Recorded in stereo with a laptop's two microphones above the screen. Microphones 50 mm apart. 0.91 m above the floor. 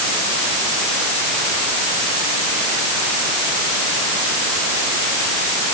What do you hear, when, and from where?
Only background noise.